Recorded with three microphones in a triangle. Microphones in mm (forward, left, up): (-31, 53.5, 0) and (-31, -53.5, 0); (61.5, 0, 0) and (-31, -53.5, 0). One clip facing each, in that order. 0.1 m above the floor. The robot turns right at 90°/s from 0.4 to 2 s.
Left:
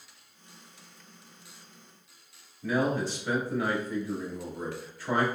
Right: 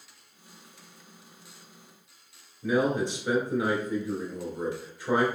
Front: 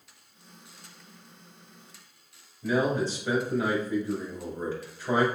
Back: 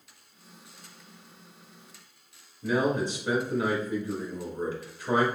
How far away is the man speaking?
About 1.6 m.